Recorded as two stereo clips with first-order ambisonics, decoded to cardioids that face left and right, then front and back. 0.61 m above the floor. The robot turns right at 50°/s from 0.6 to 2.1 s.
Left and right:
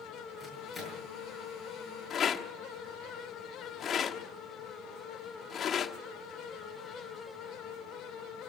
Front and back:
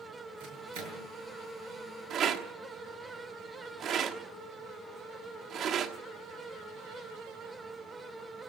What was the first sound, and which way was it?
A microwave, 170° left.